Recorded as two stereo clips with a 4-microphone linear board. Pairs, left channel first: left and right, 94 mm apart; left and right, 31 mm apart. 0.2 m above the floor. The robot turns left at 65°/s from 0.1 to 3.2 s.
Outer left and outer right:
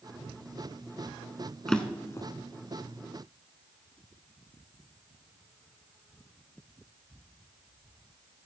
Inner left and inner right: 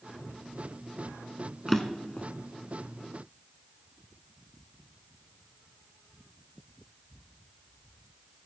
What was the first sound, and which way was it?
A drawer, 5° left (ahead or behind).